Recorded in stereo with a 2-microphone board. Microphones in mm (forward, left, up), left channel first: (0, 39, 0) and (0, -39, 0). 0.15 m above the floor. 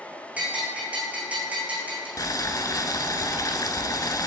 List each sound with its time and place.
0.4 s a bell: 20° right (ahead or behind), 2 m
2.2 s boiling: 50° left (ahead or behind), 0.6 m